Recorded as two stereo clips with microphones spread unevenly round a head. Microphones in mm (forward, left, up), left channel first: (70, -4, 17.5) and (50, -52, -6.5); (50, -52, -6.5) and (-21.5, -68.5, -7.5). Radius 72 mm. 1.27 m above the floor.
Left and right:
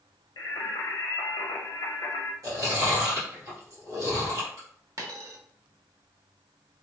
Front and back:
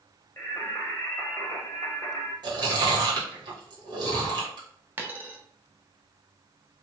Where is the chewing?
145° right, 1.3 m.